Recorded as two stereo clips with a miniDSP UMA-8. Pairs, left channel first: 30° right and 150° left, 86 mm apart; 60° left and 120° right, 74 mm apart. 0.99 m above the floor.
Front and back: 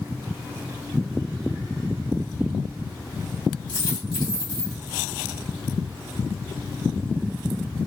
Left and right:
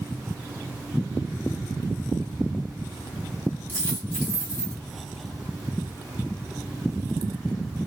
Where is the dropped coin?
5° right, 2.5 m.